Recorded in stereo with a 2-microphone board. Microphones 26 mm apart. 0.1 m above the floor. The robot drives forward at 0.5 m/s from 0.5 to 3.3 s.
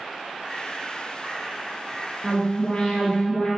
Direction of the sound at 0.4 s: 25° left (ahead or behind).